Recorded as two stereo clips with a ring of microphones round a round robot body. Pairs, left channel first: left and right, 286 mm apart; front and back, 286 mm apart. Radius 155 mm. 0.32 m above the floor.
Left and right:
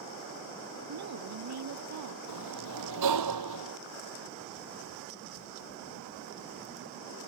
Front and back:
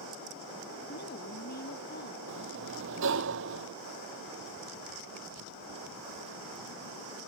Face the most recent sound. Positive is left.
turn(degrees=-125)